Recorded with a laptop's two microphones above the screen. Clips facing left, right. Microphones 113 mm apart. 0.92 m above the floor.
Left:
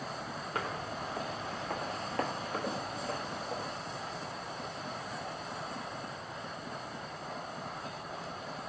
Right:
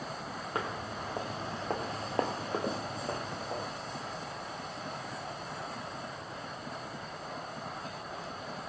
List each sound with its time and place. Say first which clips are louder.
0.6 s footsteps: right 1 dB; 25° right (ahead or behind), 1.3 m; by 3.7 s 20° right (ahead or behind), 1.6 m